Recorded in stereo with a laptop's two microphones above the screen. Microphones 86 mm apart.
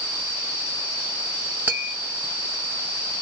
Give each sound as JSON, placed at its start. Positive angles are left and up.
{"t": 1.7, "sound": "tapping", "side_deg": -20, "distance_m": 1.3}